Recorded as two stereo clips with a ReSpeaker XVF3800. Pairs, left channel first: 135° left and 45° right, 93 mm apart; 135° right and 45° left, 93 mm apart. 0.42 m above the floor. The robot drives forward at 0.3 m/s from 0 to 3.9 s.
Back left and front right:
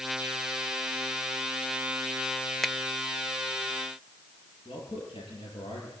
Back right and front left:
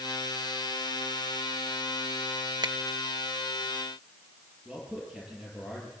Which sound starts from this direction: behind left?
A man speaking, at 4.7 s.